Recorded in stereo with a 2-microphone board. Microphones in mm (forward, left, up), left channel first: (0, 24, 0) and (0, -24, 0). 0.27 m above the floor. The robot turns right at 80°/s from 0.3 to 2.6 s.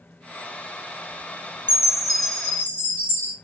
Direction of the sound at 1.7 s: 35° right.